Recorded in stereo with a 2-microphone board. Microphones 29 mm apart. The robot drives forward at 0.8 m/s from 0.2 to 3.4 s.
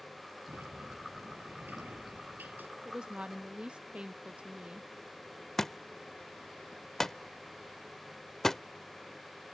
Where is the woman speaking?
25° right (ahead or behind); by 4.9 s 35° right (ahead or behind).